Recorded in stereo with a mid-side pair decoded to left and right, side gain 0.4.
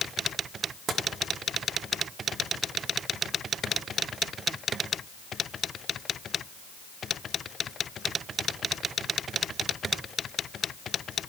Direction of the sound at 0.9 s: 55° right.